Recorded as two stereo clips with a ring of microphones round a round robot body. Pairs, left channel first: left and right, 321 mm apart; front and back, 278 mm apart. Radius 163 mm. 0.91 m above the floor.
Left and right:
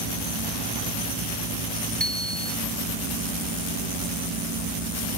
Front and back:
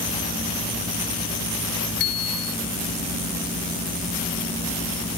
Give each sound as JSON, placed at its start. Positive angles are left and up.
{"t": 2.0, "sound": "a bicycle bell", "azimuth_deg": 0}